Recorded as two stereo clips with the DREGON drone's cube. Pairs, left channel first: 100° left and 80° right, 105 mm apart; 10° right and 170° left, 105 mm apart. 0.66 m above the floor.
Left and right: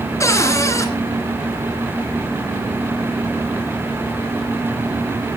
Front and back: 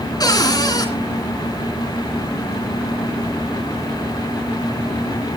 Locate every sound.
0.2 s a cupboard door: 40° left, 2.5 m